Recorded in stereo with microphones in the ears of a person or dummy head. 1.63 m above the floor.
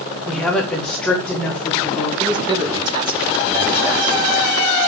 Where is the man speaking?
30° right (ahead or behind), 3.5 m.